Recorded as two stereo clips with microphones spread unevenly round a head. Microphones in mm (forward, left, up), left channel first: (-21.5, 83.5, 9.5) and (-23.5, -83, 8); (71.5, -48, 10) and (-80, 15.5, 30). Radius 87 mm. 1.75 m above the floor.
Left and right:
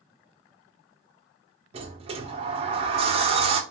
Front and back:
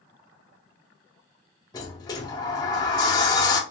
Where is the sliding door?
85° right, 0.5 m.